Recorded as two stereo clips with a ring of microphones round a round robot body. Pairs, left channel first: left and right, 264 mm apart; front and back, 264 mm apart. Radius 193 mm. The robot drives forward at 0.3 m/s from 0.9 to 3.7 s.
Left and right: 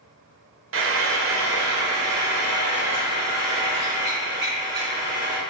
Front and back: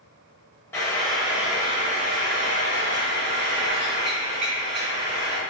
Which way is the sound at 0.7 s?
80° right.